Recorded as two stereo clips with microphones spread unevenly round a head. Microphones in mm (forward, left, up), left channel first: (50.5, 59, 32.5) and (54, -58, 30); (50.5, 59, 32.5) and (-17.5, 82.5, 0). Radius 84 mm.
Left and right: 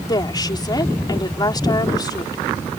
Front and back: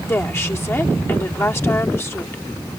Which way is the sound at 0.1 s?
35° left.